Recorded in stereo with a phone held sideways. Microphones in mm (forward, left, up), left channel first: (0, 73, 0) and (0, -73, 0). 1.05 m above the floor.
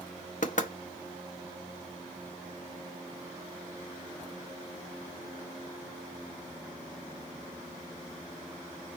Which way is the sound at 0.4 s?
65° left (ahead or behind).